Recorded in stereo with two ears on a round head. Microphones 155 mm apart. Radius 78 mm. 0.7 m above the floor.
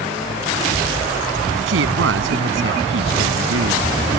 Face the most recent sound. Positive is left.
turn(degrees=-80)